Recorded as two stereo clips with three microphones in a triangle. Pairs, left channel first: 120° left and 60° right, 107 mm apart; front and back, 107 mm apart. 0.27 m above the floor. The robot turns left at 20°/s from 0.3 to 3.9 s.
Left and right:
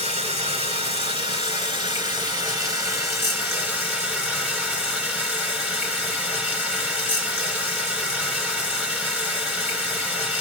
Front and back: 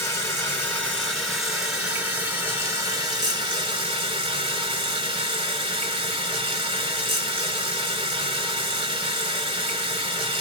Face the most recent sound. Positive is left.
turn(degrees=-140)